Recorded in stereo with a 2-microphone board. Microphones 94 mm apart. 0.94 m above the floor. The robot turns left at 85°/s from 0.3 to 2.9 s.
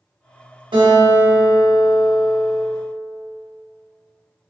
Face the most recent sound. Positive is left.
turn(degrees=85)